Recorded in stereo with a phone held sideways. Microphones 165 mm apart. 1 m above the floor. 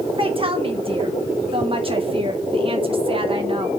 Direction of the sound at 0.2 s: 35° right (ahead or behind).